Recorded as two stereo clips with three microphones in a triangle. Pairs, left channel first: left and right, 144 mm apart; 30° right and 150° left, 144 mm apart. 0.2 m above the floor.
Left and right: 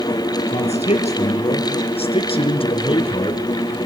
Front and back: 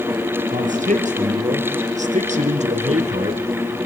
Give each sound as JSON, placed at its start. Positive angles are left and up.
{"t": 0.5, "sound": "a man speaking", "azimuth_deg": 125, "distance_m": 3.0}